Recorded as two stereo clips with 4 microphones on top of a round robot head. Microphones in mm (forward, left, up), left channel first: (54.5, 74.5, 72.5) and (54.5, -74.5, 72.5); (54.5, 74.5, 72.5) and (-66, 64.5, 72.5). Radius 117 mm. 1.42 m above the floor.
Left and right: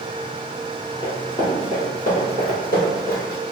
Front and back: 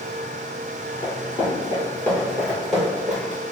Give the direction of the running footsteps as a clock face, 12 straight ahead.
11 o'clock.